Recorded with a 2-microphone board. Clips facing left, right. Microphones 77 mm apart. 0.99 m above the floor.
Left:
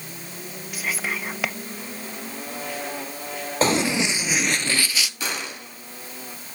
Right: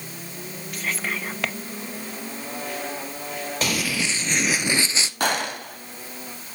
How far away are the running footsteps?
About 1.6 m.